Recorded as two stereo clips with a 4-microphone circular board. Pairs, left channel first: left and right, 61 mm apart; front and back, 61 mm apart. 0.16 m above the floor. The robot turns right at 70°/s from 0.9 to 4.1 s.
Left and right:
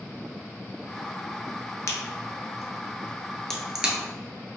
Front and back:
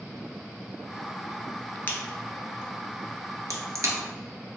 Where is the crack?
55° left, 0.8 m; by 4.0 s 160° right, 0.8 m.